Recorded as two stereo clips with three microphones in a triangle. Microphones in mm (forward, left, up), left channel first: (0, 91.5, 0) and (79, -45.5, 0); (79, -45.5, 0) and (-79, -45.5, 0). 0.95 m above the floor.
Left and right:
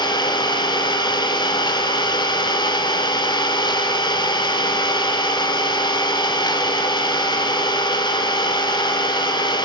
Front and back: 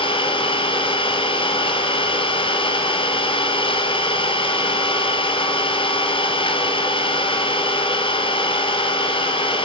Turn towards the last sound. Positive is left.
turn(degrees=55)